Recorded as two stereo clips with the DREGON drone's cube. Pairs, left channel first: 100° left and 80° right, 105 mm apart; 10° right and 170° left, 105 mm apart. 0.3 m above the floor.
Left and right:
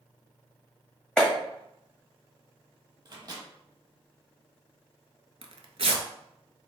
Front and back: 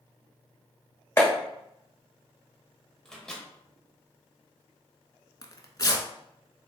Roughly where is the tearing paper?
Ahead right.